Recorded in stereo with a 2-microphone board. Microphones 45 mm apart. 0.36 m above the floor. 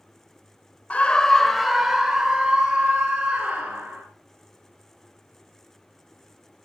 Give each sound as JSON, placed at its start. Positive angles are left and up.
{"t": 0.9, "sound": "a scream", "side_deg": 30, "distance_m": 1.1}